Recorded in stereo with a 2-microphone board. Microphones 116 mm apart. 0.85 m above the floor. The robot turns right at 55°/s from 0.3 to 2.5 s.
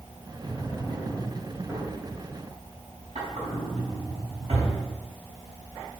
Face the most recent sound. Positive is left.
turn(degrees=-85)